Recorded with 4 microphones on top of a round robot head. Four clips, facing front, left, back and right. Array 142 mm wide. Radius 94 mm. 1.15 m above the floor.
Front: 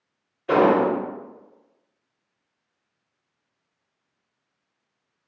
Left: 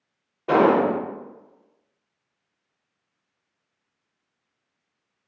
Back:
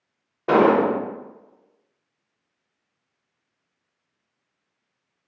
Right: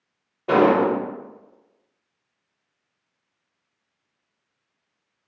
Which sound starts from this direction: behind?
An explosion, at 0.5 s.